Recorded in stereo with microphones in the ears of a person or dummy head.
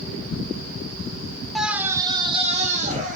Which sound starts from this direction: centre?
A scream, at 1.6 s.